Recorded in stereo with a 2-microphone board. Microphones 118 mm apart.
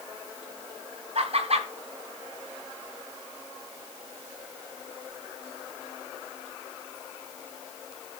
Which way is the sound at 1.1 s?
60° right (ahead or behind).